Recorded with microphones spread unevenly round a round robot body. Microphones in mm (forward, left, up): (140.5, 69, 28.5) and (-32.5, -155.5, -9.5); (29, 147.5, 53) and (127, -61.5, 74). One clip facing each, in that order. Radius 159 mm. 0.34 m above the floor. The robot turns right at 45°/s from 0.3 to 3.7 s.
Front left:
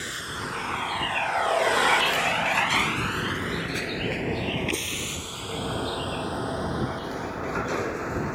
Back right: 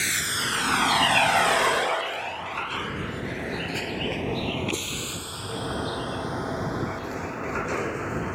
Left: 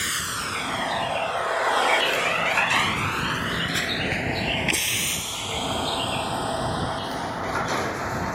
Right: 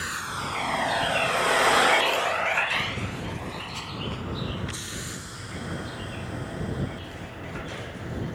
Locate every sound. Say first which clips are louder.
0.0 s a vehicle: back right 1 dB, left 1 dB; 175° left; by 8.3 s 145° left